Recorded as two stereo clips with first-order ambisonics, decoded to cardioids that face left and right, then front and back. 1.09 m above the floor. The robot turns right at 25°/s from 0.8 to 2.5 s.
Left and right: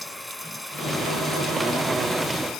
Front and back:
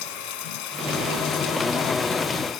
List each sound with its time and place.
0.0 s running water: 5° left; by 2.6 s 45° left